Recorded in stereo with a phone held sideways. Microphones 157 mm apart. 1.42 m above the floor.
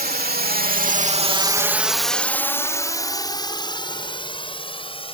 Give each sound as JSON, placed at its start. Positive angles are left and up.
{"t": 0.0, "sound": "a drone", "side_deg": -80}